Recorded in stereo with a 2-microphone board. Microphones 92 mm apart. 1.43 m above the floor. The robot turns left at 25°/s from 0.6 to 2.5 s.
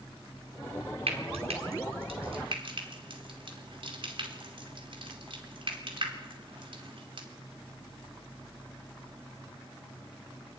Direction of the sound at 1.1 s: 85° right.